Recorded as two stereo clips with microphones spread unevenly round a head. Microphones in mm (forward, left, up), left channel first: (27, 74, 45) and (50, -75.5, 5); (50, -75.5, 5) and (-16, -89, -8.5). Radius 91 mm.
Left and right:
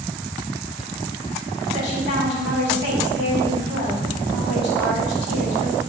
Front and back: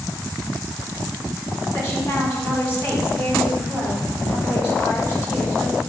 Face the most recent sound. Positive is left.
turn(degrees=95)